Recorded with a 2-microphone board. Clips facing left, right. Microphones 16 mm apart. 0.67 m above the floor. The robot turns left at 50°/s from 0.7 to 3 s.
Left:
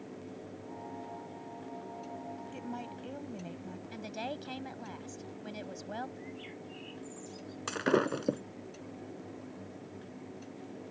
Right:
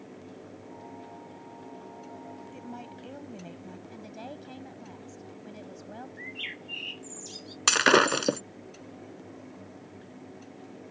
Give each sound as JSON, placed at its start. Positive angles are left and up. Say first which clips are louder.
{"t": 2.5, "sound": "a woman speaking", "louder": "left 1 dB", "side_deg": 10}
{"t": 3.9, "sound": "a woman speaking", "louder": "left 5 dB", "side_deg": 35}
{"t": 6.2, "sound": "a bird", "louder": "right 8 dB", "side_deg": -80}
{"t": 7.7, "sound": "breaking glass", "louder": "right 9 dB", "side_deg": -85}